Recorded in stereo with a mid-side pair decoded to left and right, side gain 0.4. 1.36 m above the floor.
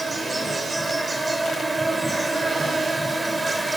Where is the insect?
20° right, 4.5 m.